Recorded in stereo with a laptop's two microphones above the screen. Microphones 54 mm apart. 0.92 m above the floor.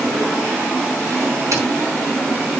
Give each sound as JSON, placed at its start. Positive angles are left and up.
{"t": 1.5, "sound": "a dropped coin", "side_deg": -70, "distance_m": 4.5}